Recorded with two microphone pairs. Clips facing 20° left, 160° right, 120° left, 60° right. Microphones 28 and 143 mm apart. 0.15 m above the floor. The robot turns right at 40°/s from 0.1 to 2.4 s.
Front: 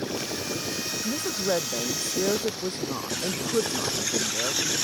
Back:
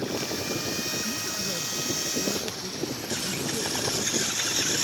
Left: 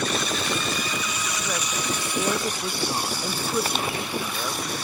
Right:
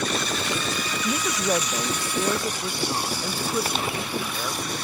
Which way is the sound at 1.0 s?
20° right.